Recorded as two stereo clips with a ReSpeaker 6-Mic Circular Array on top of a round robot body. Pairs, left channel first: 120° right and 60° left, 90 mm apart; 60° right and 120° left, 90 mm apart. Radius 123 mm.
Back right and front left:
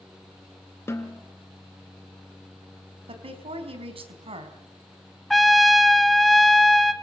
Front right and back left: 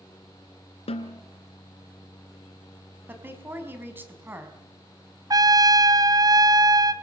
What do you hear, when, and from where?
0.9 s a snare drum: 55° right, 3 m
3.1 s a woman speaking: 55° left, 5 m
5.3 s a trumpet: 150° left, 1.9 m